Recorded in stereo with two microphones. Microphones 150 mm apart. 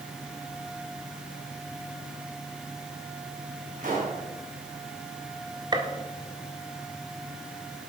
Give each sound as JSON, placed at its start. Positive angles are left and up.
{"t": 3.8, "sound": "a pop", "side_deg": -60, "distance_m": 4.5}
{"t": 5.7, "sound": "a gunshot", "side_deg": -30, "distance_m": 1.2}